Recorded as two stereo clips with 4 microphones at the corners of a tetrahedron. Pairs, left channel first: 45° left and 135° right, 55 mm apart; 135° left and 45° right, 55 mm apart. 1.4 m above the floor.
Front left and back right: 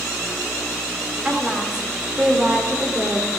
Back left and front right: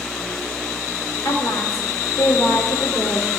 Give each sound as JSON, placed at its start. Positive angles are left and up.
{"t": 1.2, "sound": "a woman speaking", "azimuth_deg": 150, "distance_m": 3.5}